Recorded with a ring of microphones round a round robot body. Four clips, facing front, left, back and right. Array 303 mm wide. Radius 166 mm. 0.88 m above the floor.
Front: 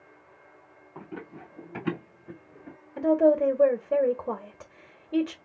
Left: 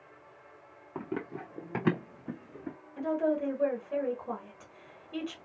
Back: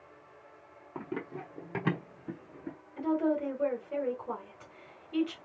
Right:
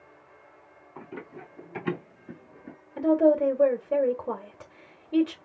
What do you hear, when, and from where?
0.9 s running footsteps: 115° left, 1.6 m
3.0 s a woman speaking: 40° right, 1.4 m